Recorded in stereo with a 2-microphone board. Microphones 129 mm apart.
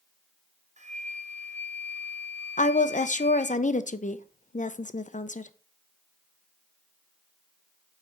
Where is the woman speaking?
75° left (ahead or behind), 0.5 m.